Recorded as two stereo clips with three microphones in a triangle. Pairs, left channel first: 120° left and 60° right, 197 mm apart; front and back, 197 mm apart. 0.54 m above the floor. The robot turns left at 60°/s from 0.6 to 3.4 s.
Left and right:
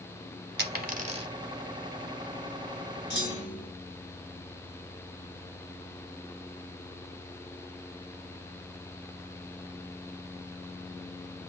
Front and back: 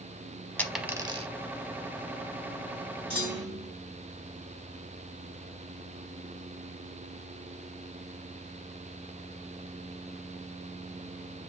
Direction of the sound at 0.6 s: 80° right.